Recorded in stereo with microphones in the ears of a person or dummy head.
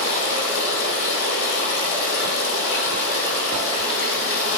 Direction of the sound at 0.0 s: 75° left (ahead or behind).